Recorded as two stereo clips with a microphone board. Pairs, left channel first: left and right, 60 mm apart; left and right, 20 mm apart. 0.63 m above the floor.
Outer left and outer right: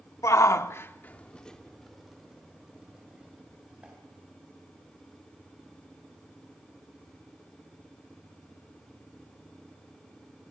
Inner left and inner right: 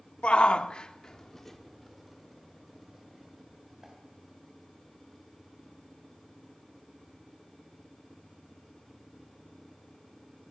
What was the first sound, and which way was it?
A shout, 60° left (ahead or behind).